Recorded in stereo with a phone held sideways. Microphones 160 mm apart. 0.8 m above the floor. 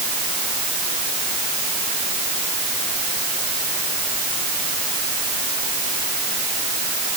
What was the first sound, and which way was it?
Only background noise.